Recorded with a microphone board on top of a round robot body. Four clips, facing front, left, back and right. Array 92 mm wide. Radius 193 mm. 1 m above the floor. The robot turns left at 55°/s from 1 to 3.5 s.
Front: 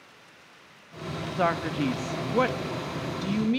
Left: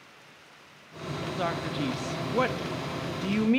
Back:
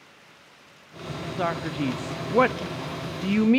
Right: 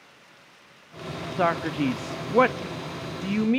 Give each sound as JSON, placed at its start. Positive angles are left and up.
{"t": 1.4, "sound": "a man speaking", "azimuth_deg": -70, "distance_m": 0.6}